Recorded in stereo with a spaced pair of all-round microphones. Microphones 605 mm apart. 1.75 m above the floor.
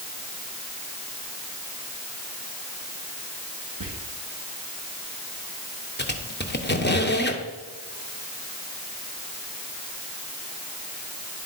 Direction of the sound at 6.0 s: 20° left (ahead or behind).